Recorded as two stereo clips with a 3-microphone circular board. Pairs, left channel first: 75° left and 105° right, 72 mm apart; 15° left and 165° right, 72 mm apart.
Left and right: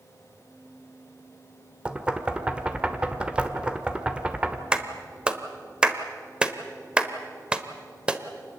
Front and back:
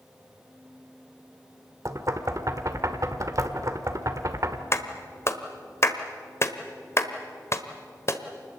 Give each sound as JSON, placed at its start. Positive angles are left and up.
{"t": 1.9, "sound": "knocking", "azimuth_deg": -175, "distance_m": 1.4}
{"t": 4.7, "sound": "a clap", "azimuth_deg": -30, "distance_m": 1.3}